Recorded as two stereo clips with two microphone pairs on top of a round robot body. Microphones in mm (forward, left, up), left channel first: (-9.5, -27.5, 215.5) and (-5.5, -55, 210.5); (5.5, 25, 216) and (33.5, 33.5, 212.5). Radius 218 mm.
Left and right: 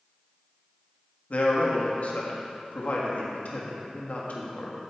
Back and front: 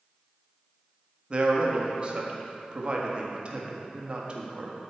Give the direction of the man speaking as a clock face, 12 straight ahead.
10 o'clock.